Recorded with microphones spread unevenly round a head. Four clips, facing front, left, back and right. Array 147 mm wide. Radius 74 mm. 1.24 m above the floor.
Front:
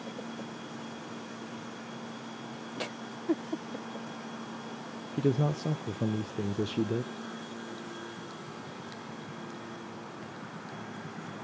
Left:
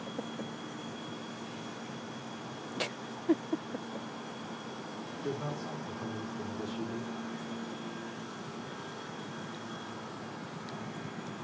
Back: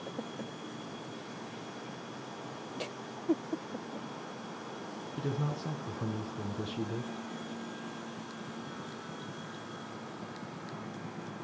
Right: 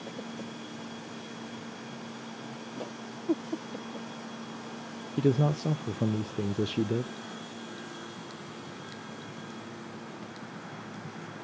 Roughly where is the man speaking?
Ahead right.